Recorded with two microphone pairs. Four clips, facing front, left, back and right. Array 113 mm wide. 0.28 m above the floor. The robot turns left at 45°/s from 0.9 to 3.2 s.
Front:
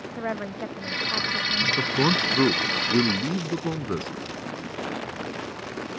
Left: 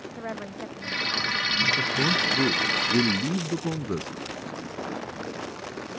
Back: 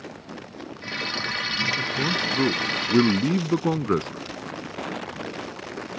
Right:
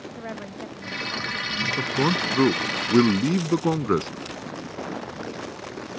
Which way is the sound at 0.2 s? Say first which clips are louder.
Left 1 dB, front 9 dB; straight ahead.